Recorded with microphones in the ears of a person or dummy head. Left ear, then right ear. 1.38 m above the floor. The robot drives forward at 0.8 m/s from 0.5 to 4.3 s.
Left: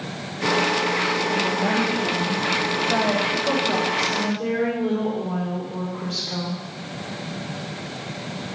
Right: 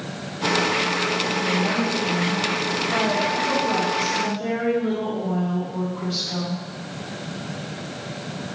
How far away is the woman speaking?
About 1.6 m.